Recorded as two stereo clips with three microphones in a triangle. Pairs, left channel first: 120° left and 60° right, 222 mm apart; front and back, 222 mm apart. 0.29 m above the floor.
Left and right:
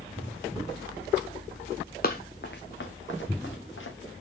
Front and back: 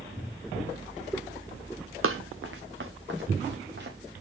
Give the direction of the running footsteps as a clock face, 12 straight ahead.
7 o'clock.